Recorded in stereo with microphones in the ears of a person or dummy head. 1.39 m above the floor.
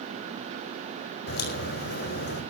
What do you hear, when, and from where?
1.3 s a crack: 55° left (ahead or behind), 5.5 m